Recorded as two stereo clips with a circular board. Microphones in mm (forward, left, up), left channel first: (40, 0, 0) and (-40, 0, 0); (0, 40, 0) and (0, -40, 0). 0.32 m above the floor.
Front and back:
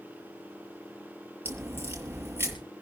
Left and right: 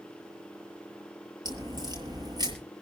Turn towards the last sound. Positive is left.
turn(degrees=-115)